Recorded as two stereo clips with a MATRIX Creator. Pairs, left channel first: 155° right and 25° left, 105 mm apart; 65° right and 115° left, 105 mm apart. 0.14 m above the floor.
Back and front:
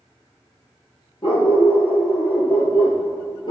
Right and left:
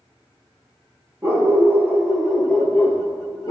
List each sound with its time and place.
1.2 s a dog barking: 175° left, 1.5 m; by 3.5 s 120° right, 1.3 m